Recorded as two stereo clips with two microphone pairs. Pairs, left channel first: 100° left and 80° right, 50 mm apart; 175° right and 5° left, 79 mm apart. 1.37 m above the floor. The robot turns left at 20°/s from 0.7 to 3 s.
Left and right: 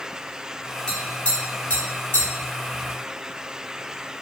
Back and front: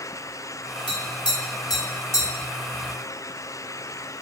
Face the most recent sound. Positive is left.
turn(degrees=130)